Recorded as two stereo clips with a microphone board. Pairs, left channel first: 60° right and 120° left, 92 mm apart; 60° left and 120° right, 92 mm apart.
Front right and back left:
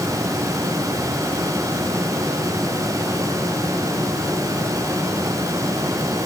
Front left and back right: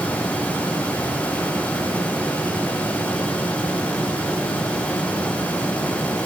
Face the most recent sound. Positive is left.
No sound to turn to.